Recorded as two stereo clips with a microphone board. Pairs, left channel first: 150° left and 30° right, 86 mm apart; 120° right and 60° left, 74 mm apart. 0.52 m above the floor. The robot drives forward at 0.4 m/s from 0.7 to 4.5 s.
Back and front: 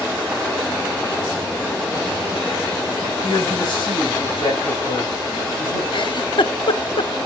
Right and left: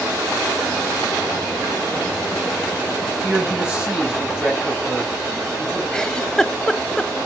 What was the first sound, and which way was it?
A man speaking, 130° left.